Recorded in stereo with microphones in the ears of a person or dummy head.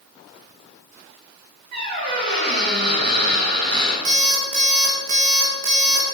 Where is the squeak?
55° right (ahead or behind), 3.5 m.